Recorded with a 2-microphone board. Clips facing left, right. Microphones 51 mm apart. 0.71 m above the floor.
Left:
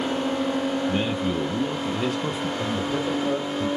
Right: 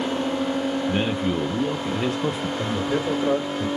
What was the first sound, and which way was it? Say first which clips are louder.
A man speaking: right 1 dB; 25° right (ahead or behind).